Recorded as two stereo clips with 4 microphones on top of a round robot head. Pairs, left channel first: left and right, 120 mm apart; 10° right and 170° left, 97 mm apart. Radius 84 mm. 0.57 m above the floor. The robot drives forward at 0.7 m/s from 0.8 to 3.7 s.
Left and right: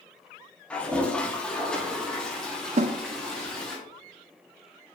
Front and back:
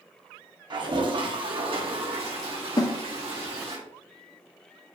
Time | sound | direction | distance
0.7 | a toilet flushing | 165° left | 1.7 m
2.8 | a snare drum | 60° right | 0.6 m